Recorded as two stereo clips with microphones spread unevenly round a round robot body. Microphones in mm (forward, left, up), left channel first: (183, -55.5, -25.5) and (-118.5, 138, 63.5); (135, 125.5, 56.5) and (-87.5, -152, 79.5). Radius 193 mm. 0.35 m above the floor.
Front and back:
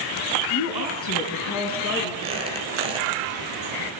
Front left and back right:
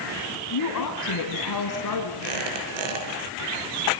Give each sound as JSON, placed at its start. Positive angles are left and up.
{"t": 0.5, "sound": "a woman speaking", "azimuth_deg": 10, "distance_m": 4.0}
{"t": 2.2, "sound": "a squeak", "azimuth_deg": -135, "distance_m": 5.5}